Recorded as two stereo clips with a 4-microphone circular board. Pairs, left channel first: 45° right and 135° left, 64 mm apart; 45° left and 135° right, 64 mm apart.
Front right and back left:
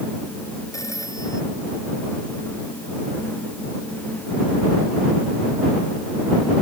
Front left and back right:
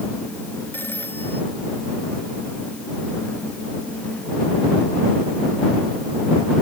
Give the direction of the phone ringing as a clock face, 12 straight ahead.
12 o'clock.